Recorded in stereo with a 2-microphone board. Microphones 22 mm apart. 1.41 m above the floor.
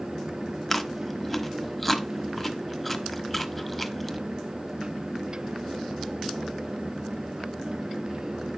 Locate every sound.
0.7 s chewing: 5° left (ahead or behind), 1.1 m